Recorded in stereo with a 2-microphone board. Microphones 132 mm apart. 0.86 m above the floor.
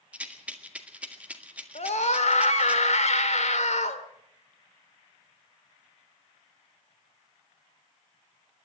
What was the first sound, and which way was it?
A rattle, 10° right (ahead or behind).